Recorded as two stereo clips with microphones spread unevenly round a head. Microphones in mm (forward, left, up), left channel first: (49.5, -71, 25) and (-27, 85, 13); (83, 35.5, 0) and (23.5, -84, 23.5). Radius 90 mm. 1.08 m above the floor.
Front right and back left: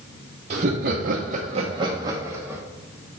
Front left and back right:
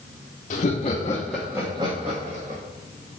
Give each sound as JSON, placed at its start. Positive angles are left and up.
{"t": 0.5, "sound": "laughter", "azimuth_deg": 75, "distance_m": 0.9}